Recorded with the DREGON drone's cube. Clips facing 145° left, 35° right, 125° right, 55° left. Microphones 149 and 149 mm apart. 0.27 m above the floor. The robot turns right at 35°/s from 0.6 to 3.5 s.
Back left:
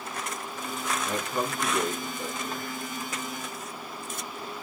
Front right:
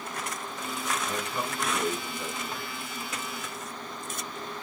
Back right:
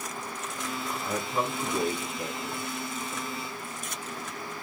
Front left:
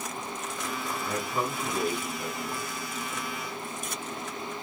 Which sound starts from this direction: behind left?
A man speaking, at 1.1 s.